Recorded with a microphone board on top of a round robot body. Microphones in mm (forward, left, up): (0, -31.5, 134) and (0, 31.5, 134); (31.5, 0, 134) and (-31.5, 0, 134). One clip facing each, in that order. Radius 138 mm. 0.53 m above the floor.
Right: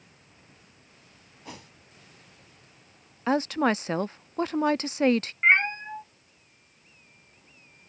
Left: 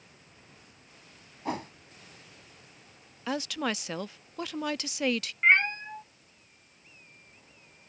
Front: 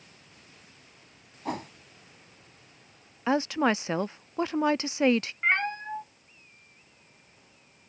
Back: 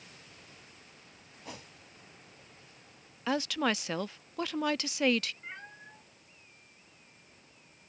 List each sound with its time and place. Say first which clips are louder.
1.4 s a whoosh: left 11 dB, front 13 dB; 40° left
3.3 s a woman speaking: right 8 dB, front 5 dB; 55° right
5.4 s a cat meowing: right 1 dB, front 19 dB; 15° right